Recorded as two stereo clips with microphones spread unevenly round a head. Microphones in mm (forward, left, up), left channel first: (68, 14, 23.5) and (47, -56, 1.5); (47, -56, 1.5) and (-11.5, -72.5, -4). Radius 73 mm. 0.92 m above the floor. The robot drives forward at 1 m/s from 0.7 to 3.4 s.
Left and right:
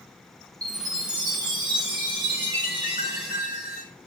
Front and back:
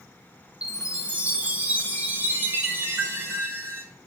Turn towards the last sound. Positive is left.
turn(degrees=-125)